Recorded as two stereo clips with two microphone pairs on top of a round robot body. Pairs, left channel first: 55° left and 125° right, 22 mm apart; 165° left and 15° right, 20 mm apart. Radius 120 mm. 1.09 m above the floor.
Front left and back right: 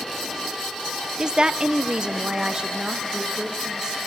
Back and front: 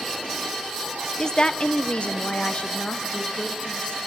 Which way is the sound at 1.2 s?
135° right.